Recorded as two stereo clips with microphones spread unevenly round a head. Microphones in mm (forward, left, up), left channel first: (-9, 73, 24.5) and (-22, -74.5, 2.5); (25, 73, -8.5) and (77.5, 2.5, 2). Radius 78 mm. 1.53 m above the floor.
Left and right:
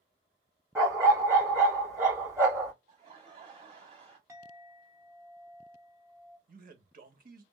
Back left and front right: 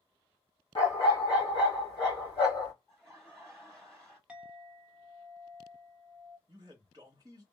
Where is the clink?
30° right, 0.9 m.